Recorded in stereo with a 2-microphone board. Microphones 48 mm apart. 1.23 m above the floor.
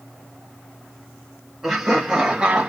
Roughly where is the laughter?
Centre.